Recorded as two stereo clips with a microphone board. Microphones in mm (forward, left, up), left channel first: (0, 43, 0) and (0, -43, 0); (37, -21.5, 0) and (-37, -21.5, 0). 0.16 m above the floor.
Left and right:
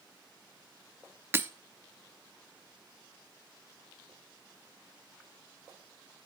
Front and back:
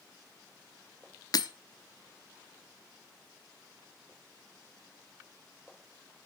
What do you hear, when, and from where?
1.3 s breaking glass: 30° right, 0.8 m